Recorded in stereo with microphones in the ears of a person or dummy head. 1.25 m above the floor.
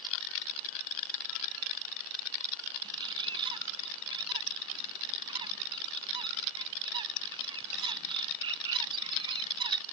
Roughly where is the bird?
Right.